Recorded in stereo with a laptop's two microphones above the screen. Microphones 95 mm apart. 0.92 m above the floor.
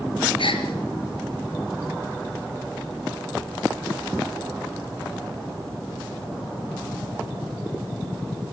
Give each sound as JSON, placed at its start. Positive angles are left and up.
{"t": 0.4, "sound": "a gasp", "side_deg": 80, "distance_m": 4.5}